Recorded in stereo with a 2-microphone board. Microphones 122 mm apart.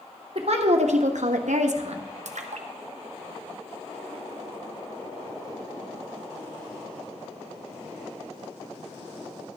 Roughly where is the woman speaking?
Right.